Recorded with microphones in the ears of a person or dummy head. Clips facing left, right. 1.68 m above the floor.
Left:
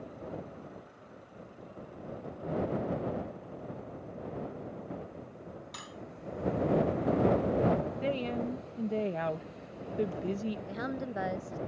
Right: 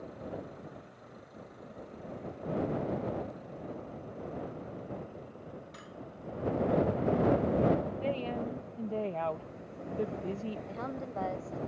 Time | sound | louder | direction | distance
5.7 | cutlery clinking | left 1 dB | 70° left (ahead or behind) | ?
8.0 | a woman speaking | left 1 dB | 20° left (ahead or behind) | ?
10.7 | a woman speaking | left 2 dB | 20° left (ahead or behind) | ?